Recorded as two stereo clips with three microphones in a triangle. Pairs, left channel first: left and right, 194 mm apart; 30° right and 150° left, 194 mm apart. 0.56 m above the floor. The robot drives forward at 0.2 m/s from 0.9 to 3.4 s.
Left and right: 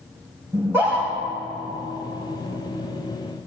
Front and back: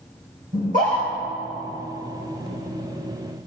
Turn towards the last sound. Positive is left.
turn(degrees=-170)